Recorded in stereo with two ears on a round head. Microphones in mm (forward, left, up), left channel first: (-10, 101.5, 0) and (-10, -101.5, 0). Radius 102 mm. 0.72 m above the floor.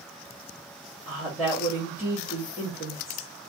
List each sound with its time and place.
1.1 s a woman speaking: 5° left (ahead or behind), 1.5 m